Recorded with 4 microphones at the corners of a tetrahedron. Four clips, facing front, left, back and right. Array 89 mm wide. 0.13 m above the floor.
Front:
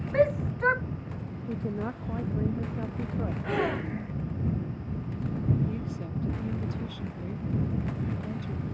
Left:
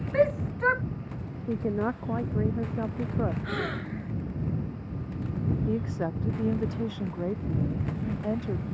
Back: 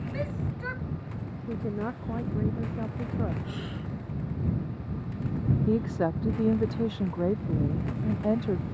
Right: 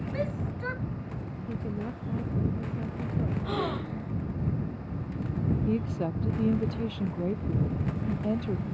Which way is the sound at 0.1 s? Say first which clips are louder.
Left 11 dB, front 13 dB; 45° left.